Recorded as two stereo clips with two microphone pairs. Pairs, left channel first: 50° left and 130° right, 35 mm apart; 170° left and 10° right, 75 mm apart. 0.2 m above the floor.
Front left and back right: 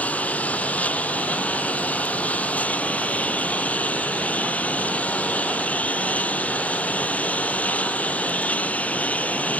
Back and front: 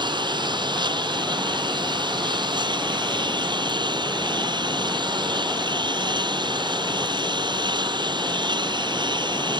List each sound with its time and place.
0.0 s a lawn mower: straight ahead